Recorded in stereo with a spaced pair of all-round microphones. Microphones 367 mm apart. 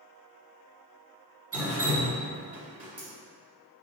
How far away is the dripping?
About 1.3 m.